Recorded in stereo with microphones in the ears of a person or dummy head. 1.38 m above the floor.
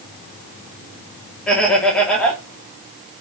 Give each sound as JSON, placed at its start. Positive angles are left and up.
{"t": 1.5, "sound": "laughter", "side_deg": 10, "distance_m": 3.0}